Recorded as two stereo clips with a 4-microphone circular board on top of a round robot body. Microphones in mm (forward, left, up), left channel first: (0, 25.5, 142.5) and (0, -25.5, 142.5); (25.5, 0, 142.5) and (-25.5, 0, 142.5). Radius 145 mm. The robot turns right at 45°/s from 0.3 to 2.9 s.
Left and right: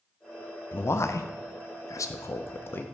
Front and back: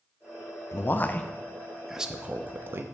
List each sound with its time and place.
0.7 s a man speaking: 40° left, 0.5 m; by 2.8 s 135° left, 0.5 m